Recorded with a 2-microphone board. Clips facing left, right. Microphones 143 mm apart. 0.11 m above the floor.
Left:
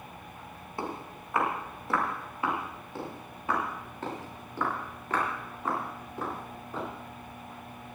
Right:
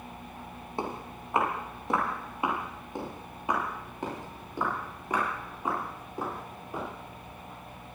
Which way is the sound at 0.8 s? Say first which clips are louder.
Right 1 dB; 25° right (ahead or behind).